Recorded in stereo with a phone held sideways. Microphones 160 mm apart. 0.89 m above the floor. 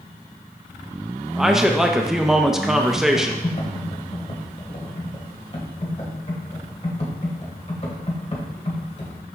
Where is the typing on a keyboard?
40° left (ahead or behind), 1.6 m.